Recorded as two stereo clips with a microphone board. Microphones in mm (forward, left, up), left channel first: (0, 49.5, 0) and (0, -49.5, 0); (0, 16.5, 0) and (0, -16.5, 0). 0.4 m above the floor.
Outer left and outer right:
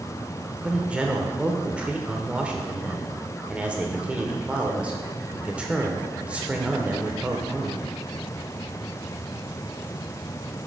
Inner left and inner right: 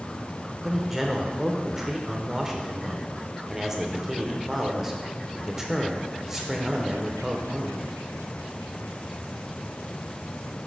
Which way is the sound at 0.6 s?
10° right (ahead or behind).